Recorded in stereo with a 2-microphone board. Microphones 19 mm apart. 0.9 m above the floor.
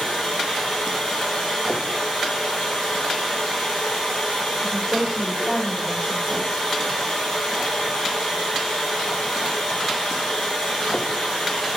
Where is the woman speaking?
35° right (ahead or behind), 1.1 m.